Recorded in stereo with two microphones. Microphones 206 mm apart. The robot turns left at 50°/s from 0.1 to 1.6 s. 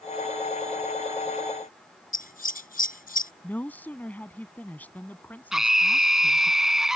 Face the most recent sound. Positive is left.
turn(degrees=0)  # may be behind; listen again after turning